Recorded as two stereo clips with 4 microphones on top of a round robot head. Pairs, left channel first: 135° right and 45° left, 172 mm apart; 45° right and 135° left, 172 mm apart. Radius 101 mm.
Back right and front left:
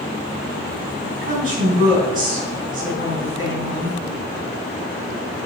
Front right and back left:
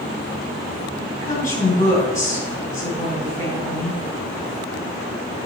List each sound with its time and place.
1.2 s a woman speaking: 5° left, 3.5 m